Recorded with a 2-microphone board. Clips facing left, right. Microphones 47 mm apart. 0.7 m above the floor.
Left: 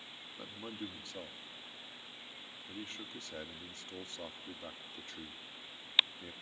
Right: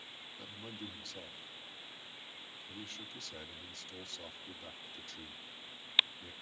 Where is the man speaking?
30° left (ahead or behind), 1.5 m.